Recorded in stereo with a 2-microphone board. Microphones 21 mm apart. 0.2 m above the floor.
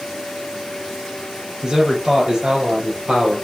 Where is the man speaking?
30° right (ahead or behind), 4.5 m; by 3.4 s 40° right (ahead or behind), 4 m.